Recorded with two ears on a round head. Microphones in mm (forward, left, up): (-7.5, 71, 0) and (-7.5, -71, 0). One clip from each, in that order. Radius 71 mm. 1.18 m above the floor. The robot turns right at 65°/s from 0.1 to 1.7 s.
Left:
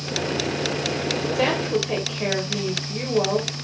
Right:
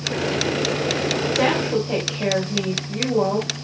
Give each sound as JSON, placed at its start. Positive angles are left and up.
{"t": 1.4, "sound": "a woman speaking", "side_deg": 75, "distance_m": 4.5}